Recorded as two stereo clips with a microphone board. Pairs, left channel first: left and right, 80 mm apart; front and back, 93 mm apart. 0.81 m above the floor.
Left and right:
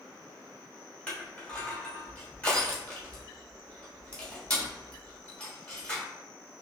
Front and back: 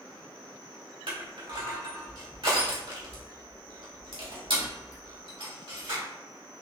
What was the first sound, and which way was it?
Crushing, 165° left.